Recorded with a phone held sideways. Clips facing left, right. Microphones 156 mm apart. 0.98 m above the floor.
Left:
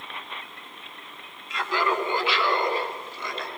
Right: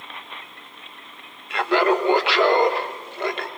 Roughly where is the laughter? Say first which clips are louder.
Right 7 dB; right.